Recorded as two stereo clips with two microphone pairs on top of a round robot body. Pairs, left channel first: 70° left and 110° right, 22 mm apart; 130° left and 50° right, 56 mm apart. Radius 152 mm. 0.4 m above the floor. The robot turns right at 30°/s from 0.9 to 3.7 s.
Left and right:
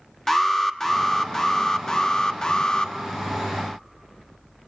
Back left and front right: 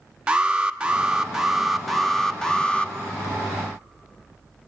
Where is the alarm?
10° left, 1.3 m; by 2.9 s 70° left, 1.3 m.